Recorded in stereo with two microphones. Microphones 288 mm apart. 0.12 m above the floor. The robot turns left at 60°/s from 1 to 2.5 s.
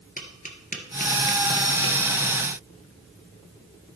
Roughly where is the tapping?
Left.